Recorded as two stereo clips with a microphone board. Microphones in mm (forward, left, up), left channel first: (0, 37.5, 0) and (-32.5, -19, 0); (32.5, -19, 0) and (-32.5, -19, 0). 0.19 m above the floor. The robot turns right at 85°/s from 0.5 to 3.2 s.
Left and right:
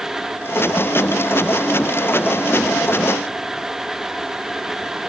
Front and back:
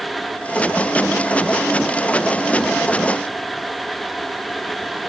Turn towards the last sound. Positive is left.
No sound to turn to.